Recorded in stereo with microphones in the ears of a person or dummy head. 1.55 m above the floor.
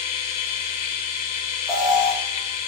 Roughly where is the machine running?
Left.